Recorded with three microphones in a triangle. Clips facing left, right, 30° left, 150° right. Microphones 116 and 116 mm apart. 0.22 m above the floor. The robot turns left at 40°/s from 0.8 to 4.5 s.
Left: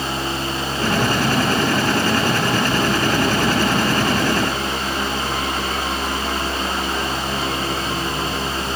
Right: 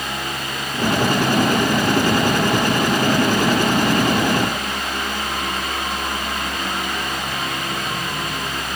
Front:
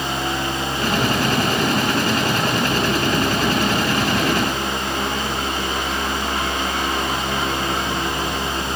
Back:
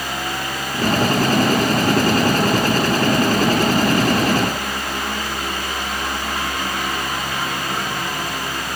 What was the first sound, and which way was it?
Only background noise.